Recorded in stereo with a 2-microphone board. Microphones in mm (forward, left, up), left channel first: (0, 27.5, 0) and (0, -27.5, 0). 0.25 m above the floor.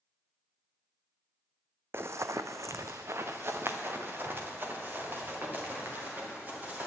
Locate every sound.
1.9 s running footsteps: 45° right (ahead or behind), 0.5 m; by 6.9 s 35° right (ahead or behind), 4 m